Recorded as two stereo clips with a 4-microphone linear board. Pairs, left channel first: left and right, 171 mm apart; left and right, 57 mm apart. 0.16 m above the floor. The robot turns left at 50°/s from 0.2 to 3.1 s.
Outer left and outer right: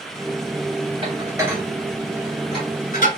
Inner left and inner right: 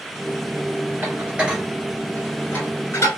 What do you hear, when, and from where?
1.0 s dishes clattering: 35° right (ahead or behind), 1.5 m; by 3.2 s 55° left (ahead or behind), 1.5 m